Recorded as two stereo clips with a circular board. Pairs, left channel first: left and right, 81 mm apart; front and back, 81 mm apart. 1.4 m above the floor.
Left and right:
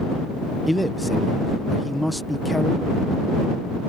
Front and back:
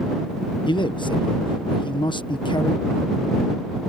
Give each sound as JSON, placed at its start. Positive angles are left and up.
{"t": 0.7, "sound": "a man speaking", "azimuth_deg": 0}